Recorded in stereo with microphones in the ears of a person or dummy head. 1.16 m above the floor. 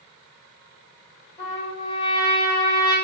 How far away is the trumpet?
About 0.9 m.